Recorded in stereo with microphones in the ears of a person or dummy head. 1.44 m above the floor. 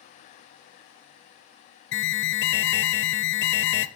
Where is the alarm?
55° left (ahead or behind), 0.7 m.